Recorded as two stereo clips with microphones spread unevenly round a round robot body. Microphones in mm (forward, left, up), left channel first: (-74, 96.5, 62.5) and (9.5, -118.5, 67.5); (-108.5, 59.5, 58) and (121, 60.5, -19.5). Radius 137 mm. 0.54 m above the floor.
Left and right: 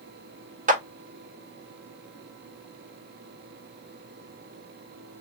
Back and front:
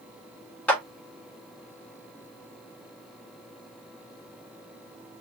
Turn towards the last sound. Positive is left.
turn(degrees=-65)